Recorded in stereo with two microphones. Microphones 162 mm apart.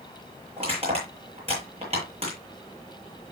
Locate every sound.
0.6 s crushing: 40° right (ahead or behind), 9 m